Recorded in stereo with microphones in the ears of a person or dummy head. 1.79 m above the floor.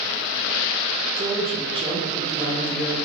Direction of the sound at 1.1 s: 25° right (ahead or behind).